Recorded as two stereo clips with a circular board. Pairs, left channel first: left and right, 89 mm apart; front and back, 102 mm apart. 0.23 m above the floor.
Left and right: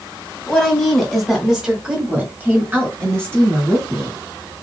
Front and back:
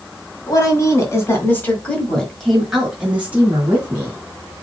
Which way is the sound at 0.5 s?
10° left.